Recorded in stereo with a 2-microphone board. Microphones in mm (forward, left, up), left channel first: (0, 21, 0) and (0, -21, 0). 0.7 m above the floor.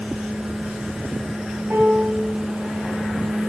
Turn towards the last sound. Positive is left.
turn(degrees=-50)  # may be behind; listen again after turning